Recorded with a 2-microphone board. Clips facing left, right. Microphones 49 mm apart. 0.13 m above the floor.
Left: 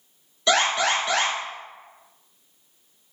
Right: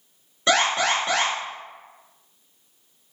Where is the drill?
I don't hear a drill.